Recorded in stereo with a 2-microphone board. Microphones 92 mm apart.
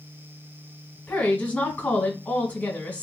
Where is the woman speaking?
20° left (ahead or behind), 1.4 m.